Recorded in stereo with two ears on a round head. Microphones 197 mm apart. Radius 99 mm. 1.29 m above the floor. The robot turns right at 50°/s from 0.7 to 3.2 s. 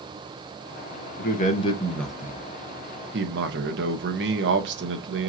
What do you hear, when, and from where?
1.2 s a man speaking: 135° left, 1.1 m; by 5.3 s 125° right, 1.1 m